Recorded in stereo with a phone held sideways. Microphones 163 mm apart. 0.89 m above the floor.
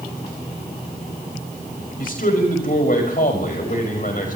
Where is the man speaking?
60° left (ahead or behind), 5.5 m.